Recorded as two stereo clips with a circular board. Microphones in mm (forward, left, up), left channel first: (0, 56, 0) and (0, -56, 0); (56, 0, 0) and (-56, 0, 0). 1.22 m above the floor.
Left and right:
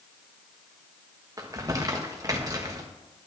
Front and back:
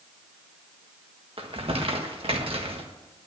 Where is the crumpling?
150° right, 1.5 m.